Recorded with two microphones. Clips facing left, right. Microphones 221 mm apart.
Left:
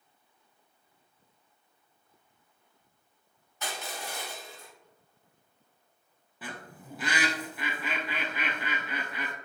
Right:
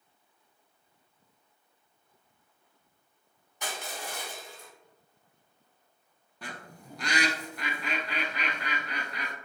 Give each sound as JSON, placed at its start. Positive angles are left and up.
{"t": 3.6, "sound": "crushing", "side_deg": -15, "distance_m": 1.8}
{"t": 6.4, "sound": "a bird", "side_deg": 5, "distance_m": 0.7}